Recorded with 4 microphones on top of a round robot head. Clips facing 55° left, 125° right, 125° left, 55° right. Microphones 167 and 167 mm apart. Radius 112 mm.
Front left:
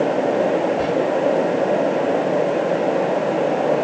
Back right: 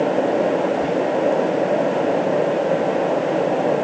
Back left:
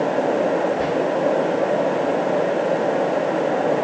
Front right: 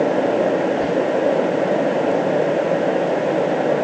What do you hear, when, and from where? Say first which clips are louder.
0.8 s whispering: even, front right 2 dB; 60° left, 5.5 m